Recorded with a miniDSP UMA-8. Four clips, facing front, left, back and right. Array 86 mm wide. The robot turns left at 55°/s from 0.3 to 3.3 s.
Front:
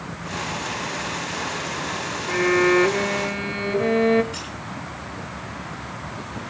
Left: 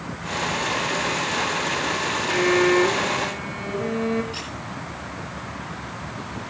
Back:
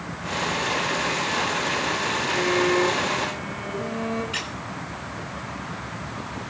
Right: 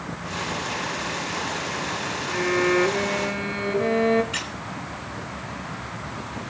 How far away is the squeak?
About 7 m.